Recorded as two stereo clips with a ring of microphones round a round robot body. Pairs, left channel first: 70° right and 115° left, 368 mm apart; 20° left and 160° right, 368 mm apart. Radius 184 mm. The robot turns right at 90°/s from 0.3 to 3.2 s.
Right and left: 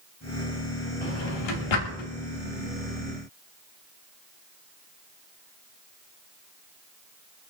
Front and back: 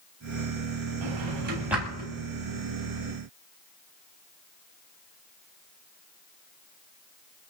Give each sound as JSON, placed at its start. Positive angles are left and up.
{"t": 1.0, "sound": "a drawer", "azimuth_deg": -135, "distance_m": 3.0}